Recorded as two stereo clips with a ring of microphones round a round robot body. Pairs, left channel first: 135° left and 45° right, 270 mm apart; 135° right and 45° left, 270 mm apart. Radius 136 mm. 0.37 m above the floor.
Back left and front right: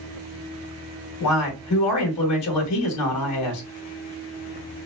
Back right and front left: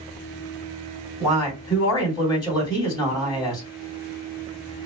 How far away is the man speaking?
About 2.5 m.